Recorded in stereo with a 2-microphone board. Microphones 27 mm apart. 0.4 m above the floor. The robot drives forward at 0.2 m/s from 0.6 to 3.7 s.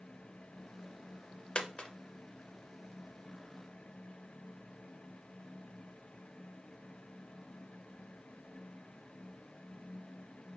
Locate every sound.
1.6 s a dropped coin: 35° left (ahead or behind), 0.5 m